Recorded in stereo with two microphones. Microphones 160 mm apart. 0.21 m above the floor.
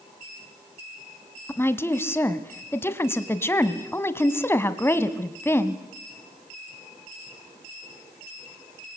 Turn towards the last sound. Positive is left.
turn(degrees=15)  # may be behind; listen again after turning